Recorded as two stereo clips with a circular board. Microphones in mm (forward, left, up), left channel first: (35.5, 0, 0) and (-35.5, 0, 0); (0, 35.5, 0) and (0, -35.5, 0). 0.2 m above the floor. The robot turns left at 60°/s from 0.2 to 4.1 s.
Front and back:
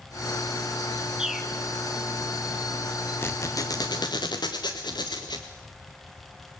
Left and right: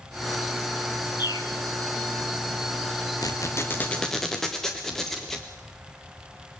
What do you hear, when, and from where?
1.2 s a bird: 100° left, 1.3 m; by 1.5 s 85° left, 1.3 m
3.2 s a squeak: 60° left, 1.8 m; by 5.5 s 5° left, 1.8 m